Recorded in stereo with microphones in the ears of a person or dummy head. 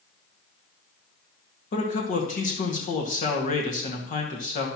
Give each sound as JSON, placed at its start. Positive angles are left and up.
{"t": 1.7, "sound": "a man speaking", "side_deg": 40, "distance_m": 1.7}